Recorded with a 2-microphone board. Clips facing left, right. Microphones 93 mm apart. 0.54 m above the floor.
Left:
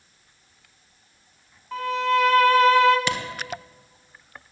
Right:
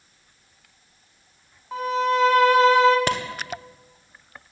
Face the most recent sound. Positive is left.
turn(degrees=-45)  # may be behind; listen again after turning